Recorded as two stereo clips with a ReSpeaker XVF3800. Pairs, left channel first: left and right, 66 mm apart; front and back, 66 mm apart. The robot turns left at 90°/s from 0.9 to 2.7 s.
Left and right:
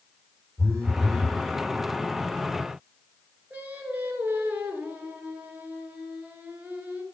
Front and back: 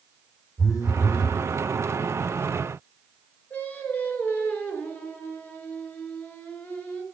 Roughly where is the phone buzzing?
Ahead right.